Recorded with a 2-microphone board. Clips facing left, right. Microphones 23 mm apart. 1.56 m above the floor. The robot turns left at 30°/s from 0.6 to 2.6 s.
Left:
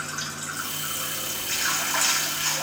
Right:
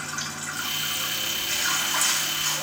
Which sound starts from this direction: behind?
Running water, at 0.0 s.